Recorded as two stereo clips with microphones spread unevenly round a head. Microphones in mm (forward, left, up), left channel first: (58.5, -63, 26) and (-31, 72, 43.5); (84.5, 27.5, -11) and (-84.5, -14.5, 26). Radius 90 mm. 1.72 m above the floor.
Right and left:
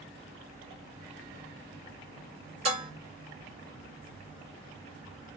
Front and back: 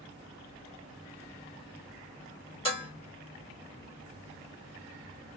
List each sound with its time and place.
2.6 s dishes clattering: 80° left, 1.9 m